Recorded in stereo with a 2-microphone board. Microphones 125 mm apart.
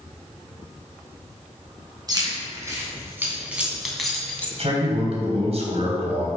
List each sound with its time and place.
2.1 s keys jangling: 30° right (ahead or behind), 3.5 m; by 4.5 s 15° left (ahead or behind), 2 m
4.6 s a man speaking: 55° right (ahead or behind), 3.5 m